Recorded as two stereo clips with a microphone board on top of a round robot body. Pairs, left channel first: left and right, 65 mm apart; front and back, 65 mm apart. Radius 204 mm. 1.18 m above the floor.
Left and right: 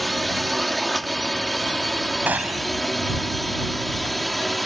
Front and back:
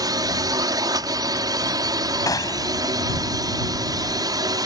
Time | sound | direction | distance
0.0 | a drone | straight behind | ?
2.3 | a gunshot | 25° right | ?